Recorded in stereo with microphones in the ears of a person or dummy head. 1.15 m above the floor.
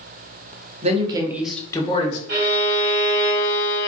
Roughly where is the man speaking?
Right.